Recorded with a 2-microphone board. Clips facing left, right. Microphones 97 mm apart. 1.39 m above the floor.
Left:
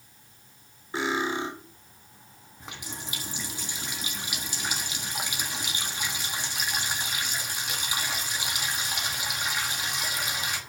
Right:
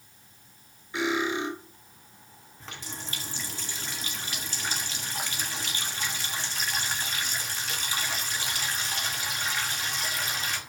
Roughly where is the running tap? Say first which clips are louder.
Left 1 dB; centre.